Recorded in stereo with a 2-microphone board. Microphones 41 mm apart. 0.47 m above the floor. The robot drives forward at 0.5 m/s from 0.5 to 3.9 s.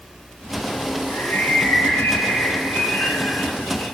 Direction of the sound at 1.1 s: 65° left (ahead or behind).